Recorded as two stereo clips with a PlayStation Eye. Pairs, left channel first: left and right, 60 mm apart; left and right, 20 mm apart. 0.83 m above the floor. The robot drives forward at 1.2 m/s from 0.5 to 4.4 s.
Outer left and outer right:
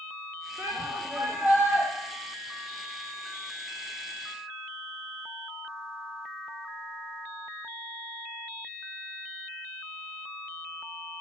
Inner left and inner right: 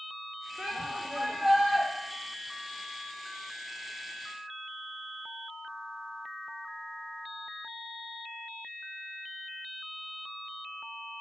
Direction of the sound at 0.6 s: 50° right (ahead or behind).